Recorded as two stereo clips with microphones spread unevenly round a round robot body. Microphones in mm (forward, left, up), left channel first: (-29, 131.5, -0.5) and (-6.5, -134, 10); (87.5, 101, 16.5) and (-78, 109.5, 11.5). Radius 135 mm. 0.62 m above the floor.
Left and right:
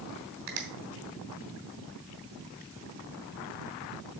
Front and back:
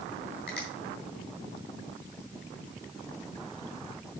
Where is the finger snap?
75° right, 3 m.